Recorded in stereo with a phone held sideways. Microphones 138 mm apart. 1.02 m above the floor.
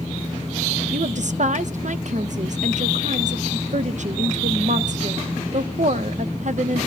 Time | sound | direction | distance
0.9 | a woman speaking | 60° right (ahead or behind) | 0.7 m